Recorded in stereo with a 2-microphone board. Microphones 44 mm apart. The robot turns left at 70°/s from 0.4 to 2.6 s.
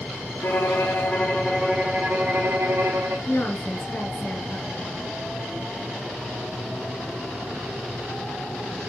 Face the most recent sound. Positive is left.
turn(degrees=40)  # may be behind; listen again after turning